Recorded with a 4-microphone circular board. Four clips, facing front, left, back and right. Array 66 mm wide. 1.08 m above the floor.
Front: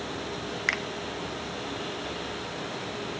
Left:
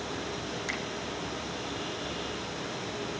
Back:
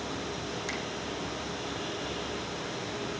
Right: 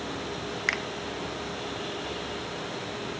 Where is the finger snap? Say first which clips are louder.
Right 9 dB, front 11 dB; 45° right, 1.1 m.